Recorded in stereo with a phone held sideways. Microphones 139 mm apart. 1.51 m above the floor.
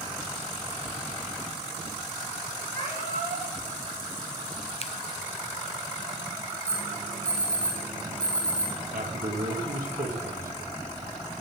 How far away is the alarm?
About 5.5 m.